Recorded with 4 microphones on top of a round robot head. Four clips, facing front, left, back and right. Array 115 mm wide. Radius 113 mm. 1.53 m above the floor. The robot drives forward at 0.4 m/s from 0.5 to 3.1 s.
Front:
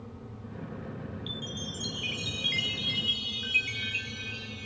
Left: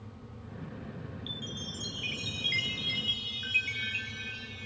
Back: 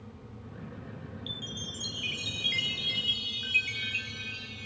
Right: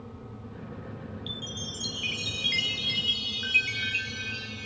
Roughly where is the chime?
Right.